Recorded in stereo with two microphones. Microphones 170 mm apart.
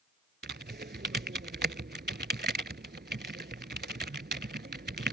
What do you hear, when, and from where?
0.4 s typing on a keyboard: 80° right